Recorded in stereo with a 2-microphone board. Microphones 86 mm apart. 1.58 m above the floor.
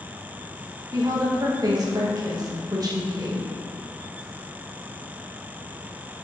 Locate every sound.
0.9 s a woman speaking: 45° right (ahead or behind), 1.3 m